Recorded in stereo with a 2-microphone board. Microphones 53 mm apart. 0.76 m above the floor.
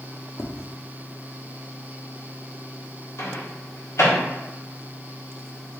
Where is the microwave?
60° left (ahead or behind), 1.4 m.